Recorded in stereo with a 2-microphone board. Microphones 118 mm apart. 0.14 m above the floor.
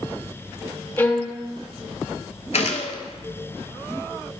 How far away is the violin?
About 1.1 m.